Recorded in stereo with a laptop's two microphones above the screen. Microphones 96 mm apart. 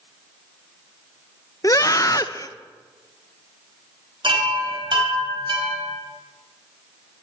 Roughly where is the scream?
Left.